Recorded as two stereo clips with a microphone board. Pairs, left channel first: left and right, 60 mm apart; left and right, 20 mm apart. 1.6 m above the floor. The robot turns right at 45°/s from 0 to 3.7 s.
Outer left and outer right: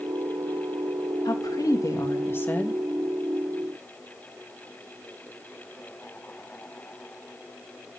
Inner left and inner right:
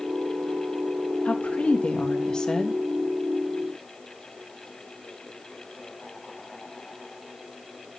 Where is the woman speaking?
95° left, 2.5 m; by 2.8 s 165° left, 2.5 m.